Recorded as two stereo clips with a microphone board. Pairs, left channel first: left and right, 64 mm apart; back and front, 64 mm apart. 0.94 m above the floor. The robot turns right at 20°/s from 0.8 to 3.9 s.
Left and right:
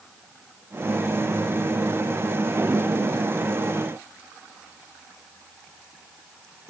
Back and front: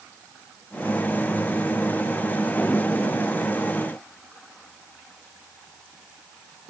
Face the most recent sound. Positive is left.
No sound to turn to.